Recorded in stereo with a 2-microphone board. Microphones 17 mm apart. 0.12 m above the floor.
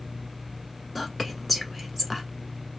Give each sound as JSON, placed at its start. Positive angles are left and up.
{"t": 0.9, "sound": "whispering", "side_deg": 10, "distance_m": 1.1}